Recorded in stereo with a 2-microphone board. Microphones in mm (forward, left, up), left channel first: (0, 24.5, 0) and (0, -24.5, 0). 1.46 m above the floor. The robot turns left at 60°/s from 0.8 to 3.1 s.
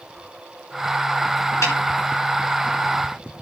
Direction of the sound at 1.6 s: 70° left (ahead or behind).